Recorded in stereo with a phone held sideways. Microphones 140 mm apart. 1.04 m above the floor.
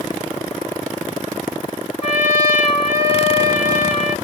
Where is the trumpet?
50° left (ahead or behind), 1.3 m.